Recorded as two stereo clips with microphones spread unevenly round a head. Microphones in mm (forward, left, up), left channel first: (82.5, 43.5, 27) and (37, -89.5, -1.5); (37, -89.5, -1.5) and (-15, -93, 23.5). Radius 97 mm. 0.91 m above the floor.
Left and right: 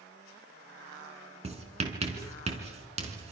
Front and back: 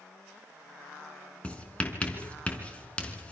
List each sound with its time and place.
1.4 s writing: 65° right, 4 m